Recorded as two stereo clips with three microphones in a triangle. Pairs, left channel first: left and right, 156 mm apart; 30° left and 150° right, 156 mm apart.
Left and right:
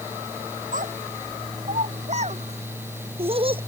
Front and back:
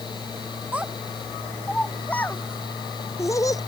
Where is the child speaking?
70° right; by 3.6 s 40° right.